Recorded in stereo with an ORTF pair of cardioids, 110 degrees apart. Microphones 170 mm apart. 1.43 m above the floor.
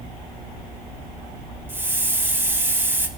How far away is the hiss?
About 1.7 m.